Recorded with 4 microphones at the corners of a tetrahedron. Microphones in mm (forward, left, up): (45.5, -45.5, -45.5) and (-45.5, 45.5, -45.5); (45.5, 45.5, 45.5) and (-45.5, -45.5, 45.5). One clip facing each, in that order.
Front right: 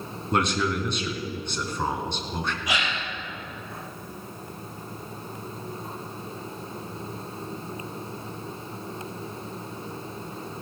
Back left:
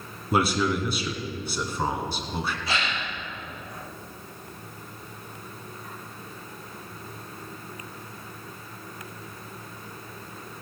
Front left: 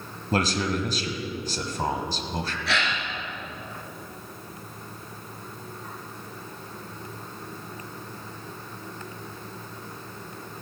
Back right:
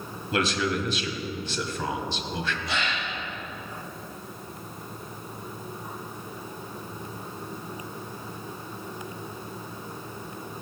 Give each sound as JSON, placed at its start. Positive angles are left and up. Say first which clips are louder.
{"t": 0.3, "sound": "a man speaking", "louder": "back left 1 dB, front left 1 dB", "azimuth_deg": 55, "distance_m": 1.5}
{"t": 2.7, "sound": "a gasp", "louder": "even, front left 2 dB", "azimuth_deg": 30, "distance_m": 2.5}